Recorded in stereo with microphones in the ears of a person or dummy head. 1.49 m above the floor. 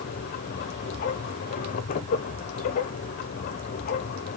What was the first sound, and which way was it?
A machine running, 45° left (ahead or behind).